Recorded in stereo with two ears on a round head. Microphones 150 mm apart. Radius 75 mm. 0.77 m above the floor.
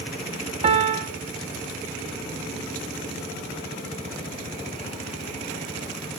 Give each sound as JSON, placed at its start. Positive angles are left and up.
{"t": 0.6, "sound": "a piano", "side_deg": -35, "distance_m": 1.4}